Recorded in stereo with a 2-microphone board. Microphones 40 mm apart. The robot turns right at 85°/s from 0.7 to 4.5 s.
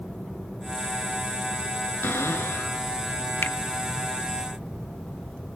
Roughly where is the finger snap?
Left.